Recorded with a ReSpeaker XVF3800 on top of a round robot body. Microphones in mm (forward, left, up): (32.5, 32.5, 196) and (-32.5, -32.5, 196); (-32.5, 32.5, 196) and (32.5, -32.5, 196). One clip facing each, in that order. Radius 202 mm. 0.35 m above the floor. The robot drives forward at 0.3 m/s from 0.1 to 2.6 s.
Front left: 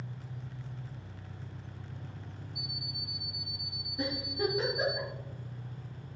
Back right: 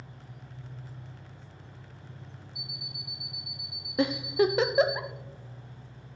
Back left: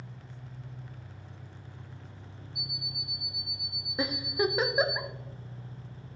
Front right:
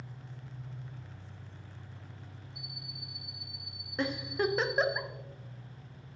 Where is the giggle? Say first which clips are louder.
Back right 9 dB, back left 2 dB; 145° right, 0.7 m.